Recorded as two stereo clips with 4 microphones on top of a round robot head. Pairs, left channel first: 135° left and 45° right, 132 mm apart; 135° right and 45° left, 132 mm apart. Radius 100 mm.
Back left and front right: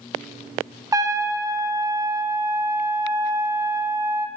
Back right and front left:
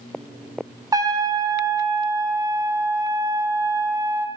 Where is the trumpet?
Straight ahead, 0.8 m.